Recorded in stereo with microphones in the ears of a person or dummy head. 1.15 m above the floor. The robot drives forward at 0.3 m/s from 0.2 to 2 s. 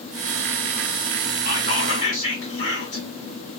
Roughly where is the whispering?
Left.